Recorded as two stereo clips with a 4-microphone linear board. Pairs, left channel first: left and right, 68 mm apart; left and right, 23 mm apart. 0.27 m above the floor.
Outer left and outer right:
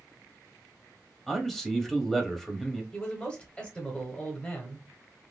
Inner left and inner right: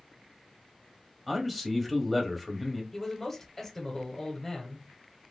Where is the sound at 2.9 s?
15° left (ahead or behind), 0.9 m.